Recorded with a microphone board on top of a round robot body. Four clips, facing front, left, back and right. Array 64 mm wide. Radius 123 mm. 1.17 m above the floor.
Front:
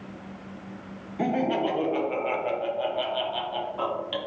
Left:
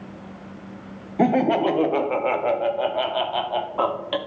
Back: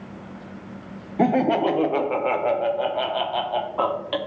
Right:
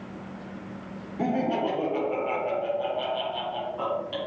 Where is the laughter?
135° left, 0.7 m.